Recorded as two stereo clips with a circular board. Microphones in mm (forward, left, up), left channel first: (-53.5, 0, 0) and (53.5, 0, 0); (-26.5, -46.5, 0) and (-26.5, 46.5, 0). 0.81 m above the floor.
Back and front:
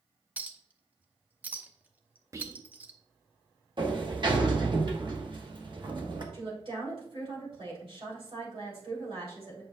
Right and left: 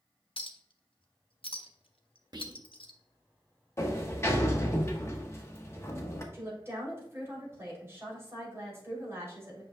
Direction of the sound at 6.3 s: 30° left.